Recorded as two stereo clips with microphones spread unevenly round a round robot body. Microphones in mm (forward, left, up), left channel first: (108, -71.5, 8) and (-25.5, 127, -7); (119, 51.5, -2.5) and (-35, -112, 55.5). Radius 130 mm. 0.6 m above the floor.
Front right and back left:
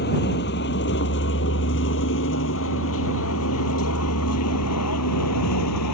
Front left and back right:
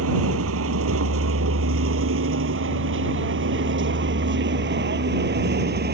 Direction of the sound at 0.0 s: 110° right.